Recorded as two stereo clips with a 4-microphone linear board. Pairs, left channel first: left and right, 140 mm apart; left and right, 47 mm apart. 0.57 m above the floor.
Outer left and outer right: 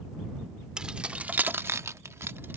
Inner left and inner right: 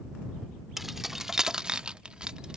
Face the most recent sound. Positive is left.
turn(degrees=-15)  # may be behind; listen again after turning